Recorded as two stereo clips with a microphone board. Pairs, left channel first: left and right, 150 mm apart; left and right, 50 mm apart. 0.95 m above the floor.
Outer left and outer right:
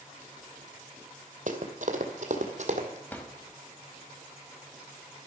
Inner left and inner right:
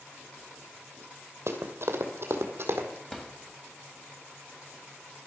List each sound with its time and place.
1.5 s running footsteps: 60° right (ahead or behind), 1.7 m; by 3.0 s 50° right (ahead or behind), 2 m
3.1 s a drawer: 10° left (ahead or behind), 1.6 m